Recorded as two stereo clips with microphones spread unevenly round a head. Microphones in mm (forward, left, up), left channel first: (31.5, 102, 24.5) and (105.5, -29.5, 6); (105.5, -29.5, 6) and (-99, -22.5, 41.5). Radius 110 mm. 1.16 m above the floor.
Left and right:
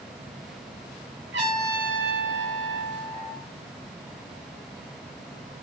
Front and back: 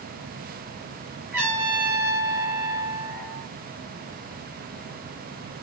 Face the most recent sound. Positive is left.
turn(degrees=-105)